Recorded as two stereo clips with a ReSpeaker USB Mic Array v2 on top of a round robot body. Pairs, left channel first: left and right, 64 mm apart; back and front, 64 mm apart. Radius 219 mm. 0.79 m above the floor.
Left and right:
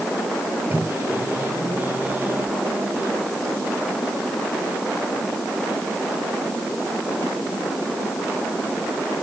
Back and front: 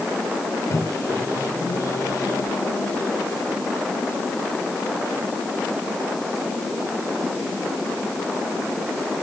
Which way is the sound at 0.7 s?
155° right.